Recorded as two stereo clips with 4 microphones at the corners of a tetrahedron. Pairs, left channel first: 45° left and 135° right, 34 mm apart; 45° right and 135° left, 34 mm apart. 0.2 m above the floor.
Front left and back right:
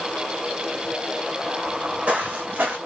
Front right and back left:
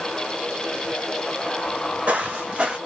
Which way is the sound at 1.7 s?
150° left.